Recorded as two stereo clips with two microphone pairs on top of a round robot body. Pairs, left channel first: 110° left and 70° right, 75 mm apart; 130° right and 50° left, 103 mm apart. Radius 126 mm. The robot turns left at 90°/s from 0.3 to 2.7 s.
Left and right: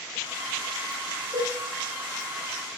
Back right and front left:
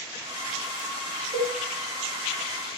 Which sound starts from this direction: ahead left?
A cowbell, at 1.3 s.